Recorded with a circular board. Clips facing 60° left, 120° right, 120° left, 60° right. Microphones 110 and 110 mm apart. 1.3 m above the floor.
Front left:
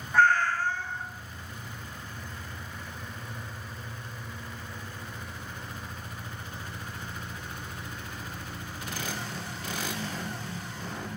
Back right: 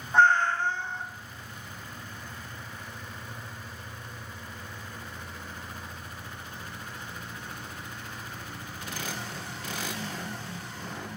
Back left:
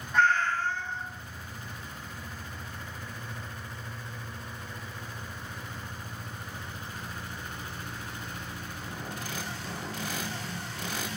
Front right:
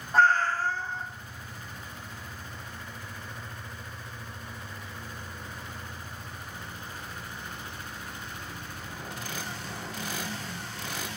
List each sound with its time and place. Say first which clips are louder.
0.1 s a cat meowing: back right 1 dB, front right 2 dB; 70° right, 0.6 m